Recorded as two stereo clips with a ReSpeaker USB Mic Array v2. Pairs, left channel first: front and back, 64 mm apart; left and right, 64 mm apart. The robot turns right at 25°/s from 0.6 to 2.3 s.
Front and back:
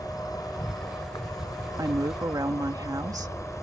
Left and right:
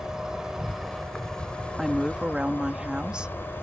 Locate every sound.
0.0 s an insect: 10° right; by 3.6 s 35° left
1.8 s a woman speaking: straight behind; by 3.5 s 165° right